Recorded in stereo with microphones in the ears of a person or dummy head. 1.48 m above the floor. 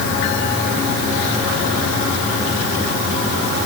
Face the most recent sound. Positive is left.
No sound to turn to.